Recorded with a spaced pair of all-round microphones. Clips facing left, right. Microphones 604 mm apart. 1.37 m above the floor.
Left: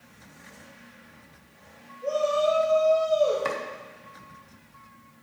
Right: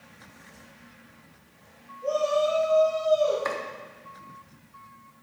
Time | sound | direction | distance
2.0 | a shout | 40° left (ahead or behind) | 3.5 m
3.5 | chopping | 55° left (ahead or behind) | 1.1 m